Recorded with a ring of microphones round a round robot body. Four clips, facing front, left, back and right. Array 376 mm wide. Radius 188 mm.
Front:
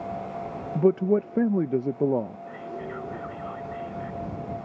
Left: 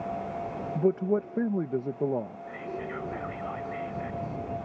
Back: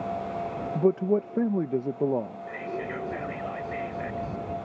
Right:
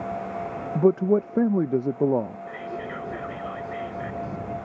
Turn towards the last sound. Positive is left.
turn(degrees=-140)